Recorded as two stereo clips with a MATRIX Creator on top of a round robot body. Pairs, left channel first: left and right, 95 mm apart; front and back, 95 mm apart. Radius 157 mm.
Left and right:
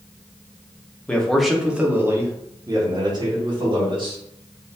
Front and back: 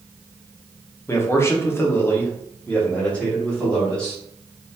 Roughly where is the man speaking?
Ahead left.